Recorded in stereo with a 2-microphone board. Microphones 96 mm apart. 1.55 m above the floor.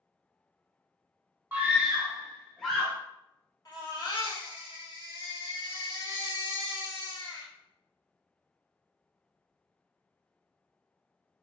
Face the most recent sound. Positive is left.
turn(degrees=45)  # may be behind; listen again after turning